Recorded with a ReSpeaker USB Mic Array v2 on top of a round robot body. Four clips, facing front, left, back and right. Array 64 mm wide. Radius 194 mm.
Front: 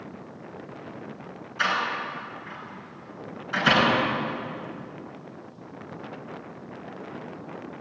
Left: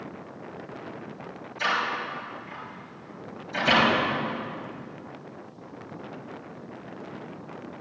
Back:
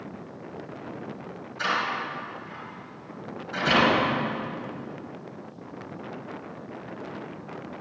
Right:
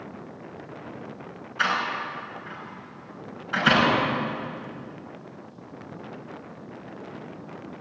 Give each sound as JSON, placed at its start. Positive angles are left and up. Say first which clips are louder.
{"t": 1.6, "sound": "a door slam", "louder": "right 1 dB, front 1 dB", "azimuth_deg": -70, "distance_m": 6.0}